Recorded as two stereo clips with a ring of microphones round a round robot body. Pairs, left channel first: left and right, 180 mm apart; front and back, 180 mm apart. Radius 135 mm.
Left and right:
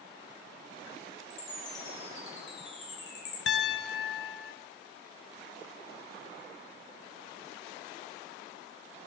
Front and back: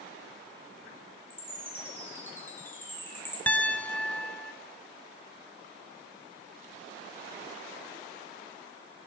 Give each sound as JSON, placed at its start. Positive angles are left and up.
{"t": 1.3, "sound": "a chime", "azimuth_deg": 80, "distance_m": 3.5}
{"t": 3.5, "sound": "a piano", "azimuth_deg": 80, "distance_m": 0.9}